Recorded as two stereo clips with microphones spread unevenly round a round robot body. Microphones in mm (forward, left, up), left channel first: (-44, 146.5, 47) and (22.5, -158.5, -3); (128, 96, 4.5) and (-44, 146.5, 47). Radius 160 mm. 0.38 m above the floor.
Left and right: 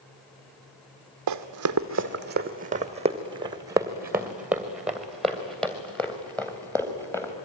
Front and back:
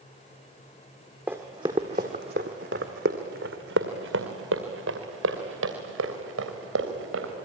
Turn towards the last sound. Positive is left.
turn(degrees=-175)